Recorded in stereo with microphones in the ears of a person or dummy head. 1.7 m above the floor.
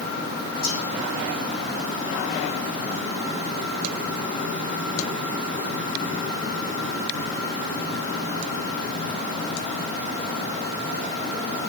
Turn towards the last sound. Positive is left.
turn(degrees=75)  # may be behind; listen again after turning